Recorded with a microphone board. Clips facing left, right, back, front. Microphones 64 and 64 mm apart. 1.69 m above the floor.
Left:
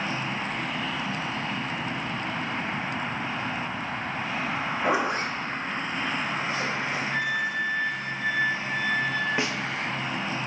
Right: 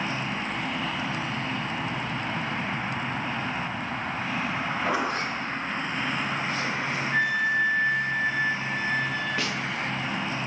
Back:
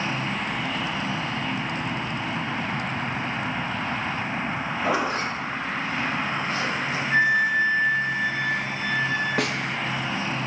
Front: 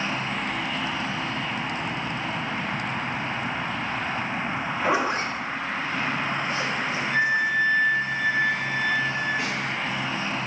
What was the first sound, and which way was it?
A zipper, 40° left.